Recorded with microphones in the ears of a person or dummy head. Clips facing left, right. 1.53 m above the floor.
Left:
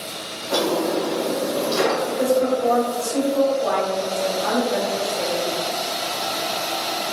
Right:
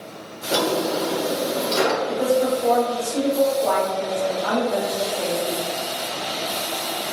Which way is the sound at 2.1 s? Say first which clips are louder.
Left 1 dB; 65° left (ahead or behind).